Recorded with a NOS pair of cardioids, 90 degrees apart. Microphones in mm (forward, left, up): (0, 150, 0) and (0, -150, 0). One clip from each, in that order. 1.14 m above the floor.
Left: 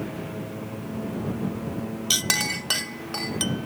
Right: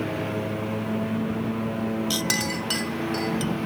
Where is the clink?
25° left.